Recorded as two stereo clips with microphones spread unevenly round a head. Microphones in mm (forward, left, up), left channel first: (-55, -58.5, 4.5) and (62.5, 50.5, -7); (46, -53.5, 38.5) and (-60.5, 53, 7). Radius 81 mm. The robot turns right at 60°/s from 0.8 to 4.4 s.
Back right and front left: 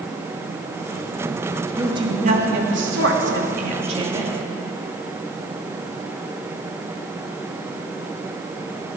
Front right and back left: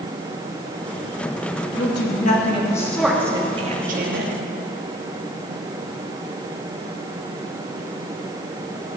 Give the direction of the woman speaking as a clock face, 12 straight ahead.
1 o'clock.